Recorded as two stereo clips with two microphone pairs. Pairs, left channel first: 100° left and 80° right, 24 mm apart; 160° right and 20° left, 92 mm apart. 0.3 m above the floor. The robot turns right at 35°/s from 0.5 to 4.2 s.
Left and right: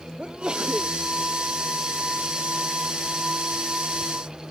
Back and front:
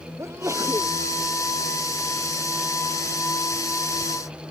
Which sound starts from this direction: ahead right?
A sneeze, at 0.2 s.